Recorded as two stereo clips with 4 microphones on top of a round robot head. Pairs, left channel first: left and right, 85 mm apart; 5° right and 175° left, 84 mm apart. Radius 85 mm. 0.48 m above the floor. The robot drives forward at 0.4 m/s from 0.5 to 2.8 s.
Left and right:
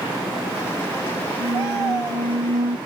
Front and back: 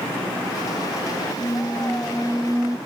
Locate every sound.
1.4 s a squeak: 70° right; by 2.8 s 115° right